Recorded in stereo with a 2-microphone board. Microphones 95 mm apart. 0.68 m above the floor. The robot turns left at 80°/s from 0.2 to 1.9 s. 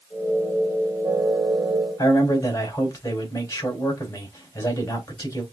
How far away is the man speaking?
About 3 m.